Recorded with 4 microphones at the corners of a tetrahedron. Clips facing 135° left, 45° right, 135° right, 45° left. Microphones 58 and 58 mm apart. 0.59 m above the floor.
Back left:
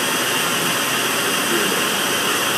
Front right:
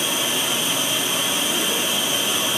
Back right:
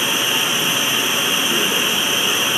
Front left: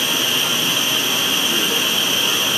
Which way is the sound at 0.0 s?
160° left.